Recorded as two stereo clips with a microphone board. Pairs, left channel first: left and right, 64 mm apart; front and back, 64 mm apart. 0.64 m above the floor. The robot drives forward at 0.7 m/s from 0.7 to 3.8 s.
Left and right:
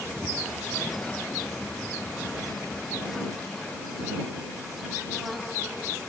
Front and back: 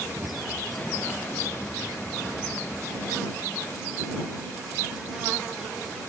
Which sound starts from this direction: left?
A cupboard door, at 0.2 s.